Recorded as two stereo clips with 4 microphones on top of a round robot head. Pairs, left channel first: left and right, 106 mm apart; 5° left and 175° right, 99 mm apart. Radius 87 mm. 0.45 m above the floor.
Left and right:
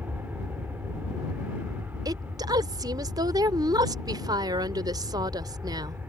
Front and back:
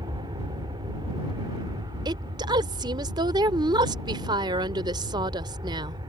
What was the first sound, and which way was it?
An aircraft, 160° right.